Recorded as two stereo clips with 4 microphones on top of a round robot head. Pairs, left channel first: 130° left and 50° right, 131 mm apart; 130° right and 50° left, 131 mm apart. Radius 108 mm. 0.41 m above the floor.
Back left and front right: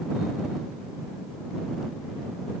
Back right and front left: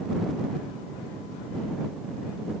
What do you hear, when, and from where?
Only background noise.